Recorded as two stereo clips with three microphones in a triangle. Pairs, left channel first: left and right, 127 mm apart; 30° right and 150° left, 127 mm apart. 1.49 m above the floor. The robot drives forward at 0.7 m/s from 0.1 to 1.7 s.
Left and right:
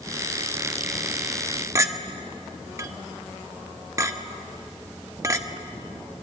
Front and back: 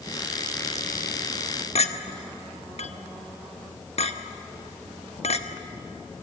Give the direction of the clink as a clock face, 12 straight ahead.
1 o'clock.